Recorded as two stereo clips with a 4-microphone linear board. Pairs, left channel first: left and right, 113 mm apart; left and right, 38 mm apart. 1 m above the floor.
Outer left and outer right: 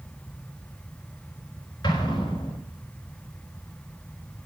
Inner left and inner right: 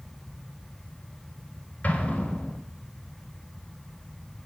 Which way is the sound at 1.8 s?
40° left (ahead or behind).